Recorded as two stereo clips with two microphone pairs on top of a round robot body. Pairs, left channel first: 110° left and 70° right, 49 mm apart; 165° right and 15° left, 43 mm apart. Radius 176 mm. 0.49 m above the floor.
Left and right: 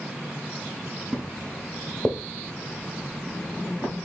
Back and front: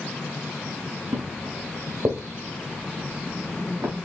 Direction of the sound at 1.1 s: 10° left.